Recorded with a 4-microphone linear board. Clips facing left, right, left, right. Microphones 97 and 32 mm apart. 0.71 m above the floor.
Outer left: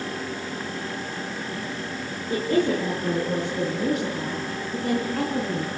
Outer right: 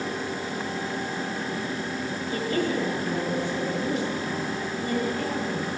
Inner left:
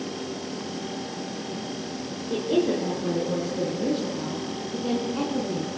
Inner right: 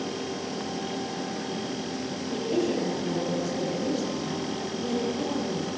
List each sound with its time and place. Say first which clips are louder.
2.3 s a woman speaking: outer left 5 dB, inner left 4 dB; 55° left (ahead or behind), 8 m; by 5.7 s 65° left (ahead or behind), 6 m